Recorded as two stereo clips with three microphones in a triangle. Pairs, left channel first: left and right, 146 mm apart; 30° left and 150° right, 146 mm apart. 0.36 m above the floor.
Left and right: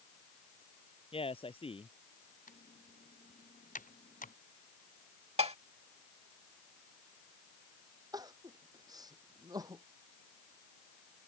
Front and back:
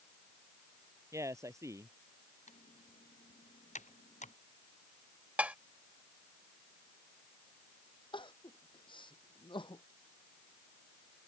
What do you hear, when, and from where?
1.1 s a man speaking: 140° left
2.5 s typing on a keyboard: 65° left
5.4 s dishes clattering: 75° right
8.1 s crying: 25° right